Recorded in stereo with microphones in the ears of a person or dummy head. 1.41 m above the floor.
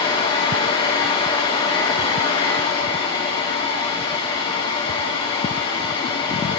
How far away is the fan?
About 1.2 m.